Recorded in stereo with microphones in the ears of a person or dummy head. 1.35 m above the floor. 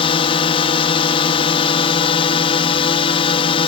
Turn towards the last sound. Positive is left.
turn(degrees=35)  # may be behind; listen again after turning